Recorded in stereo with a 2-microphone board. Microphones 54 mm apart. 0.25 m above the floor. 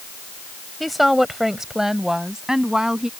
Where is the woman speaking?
Centre (ahead or behind); by 3.1 s 10° right (ahead or behind).